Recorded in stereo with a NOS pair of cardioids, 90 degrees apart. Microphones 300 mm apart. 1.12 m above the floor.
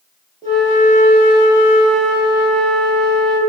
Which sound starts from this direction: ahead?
A flute, at 0.4 s.